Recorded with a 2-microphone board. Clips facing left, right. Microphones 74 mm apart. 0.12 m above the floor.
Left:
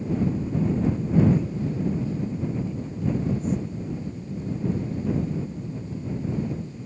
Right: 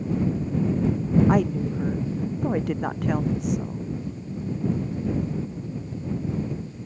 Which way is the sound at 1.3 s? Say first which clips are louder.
Right 3 dB; 70° right (ahead or behind).